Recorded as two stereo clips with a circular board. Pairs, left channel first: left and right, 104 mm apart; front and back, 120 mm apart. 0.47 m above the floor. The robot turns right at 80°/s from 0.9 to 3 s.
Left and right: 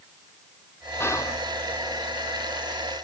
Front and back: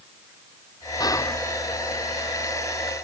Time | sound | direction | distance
1.0 | whispering | 35° left | 0.9 m